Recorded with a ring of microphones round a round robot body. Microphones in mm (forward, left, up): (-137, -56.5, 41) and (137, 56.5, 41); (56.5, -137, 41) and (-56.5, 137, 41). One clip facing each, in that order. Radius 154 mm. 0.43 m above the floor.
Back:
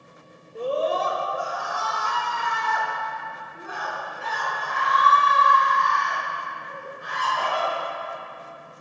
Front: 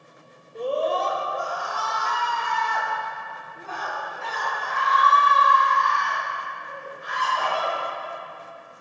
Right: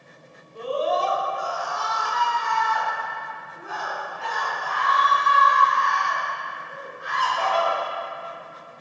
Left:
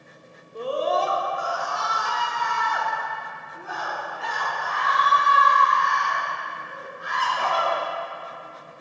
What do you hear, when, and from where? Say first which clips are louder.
0.6 s a scream: even, even; 115° left, 1.0 m; by 7.7 s 130° left, 5.5 m